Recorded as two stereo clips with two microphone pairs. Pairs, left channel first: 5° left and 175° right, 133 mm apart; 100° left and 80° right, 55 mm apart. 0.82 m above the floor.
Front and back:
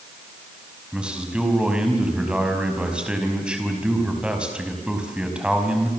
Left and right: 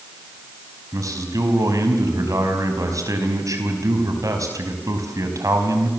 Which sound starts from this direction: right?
A man speaking, at 0.9 s.